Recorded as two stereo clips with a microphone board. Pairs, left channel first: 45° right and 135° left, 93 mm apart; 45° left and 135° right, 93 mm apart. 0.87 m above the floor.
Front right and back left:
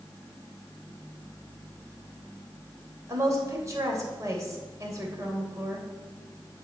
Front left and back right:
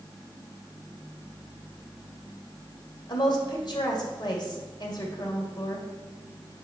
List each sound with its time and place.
3.1 s a woman speaking: 80° left, 3 m